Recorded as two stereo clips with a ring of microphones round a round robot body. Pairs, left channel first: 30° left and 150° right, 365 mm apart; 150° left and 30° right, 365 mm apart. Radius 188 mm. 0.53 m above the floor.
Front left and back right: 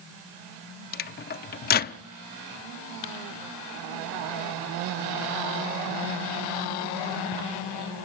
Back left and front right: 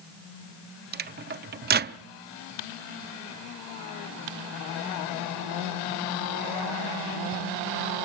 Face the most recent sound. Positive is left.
turn(degrees=0)